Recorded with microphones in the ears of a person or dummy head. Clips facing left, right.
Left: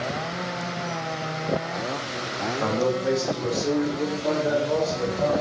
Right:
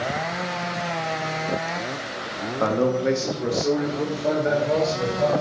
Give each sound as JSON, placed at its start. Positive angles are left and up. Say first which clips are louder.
{"t": 2.6, "sound": "a man speaking", "louder": "right 3 dB", "side_deg": -60, "distance_m": 1.4}